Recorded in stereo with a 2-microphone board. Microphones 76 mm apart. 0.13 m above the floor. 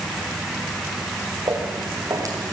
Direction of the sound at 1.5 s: 50° right (ahead or behind).